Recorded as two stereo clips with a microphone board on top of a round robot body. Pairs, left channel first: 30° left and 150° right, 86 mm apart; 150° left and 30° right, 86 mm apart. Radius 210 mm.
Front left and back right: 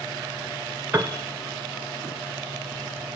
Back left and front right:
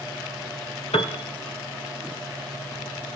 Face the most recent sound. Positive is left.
turn(degrees=140)